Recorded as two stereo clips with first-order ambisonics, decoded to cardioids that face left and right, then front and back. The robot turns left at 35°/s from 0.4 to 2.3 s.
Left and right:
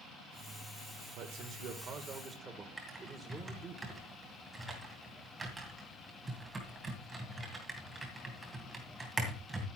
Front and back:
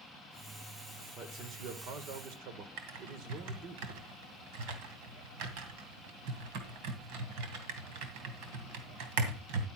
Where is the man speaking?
120° right, 2 m; by 3.8 s 160° right, 2 m.